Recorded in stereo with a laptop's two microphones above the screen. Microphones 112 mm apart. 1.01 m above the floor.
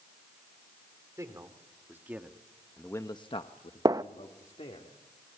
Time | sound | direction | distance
1.2 | a man speaking | 30° right (ahead or behind) | 3.5 m
3.9 | a gunshot | 35° right (ahead or behind) | 0.6 m